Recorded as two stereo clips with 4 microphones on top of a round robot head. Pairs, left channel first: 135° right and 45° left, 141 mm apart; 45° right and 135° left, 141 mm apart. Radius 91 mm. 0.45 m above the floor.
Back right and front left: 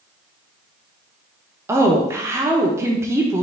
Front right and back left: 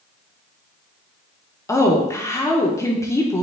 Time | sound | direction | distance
1.7 | a woman speaking | 5° right | 0.8 m